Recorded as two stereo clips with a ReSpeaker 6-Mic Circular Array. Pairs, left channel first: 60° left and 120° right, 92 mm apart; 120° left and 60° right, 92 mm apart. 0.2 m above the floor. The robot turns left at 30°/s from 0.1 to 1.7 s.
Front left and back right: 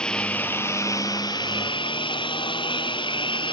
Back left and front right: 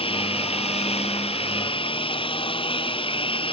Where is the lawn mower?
140° left; by 3.5 s 95° left.